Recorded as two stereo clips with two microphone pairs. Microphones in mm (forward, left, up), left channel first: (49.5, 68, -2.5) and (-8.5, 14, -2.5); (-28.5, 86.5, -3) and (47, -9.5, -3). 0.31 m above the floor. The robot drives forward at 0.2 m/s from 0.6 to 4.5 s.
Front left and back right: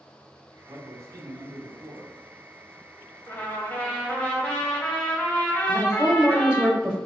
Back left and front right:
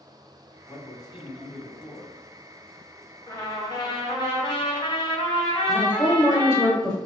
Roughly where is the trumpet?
Left.